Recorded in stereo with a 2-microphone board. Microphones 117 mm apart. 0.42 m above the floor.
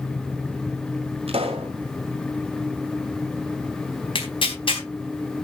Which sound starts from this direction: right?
A pop, at 1.3 s.